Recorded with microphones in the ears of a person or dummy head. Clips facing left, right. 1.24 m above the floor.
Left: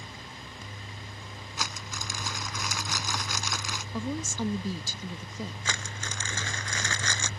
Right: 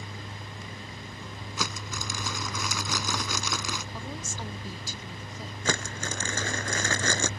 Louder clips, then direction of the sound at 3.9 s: Left 6 dB; 85° left.